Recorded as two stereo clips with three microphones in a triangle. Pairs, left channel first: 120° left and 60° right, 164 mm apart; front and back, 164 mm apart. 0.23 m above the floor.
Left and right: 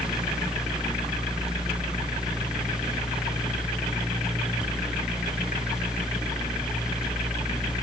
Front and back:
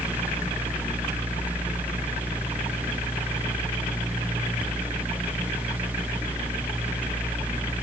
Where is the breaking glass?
I don't hear breaking glass.